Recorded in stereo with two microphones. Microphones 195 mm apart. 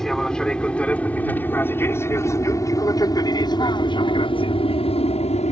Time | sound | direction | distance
0.0 | an aircraft | 5° left (ahead or behind) | ?